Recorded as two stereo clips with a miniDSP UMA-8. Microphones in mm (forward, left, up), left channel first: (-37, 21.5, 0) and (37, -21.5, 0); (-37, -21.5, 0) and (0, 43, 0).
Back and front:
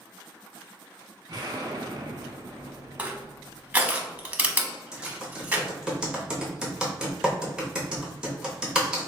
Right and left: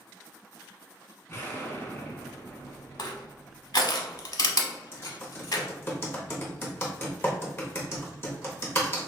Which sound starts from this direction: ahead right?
An explosion, at 1.3 s.